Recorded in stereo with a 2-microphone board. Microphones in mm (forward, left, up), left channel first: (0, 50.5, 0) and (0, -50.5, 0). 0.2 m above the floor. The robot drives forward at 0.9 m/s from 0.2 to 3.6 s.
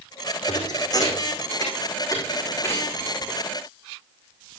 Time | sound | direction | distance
0.5 | a thud | 45° left (ahead or behind) | 4 m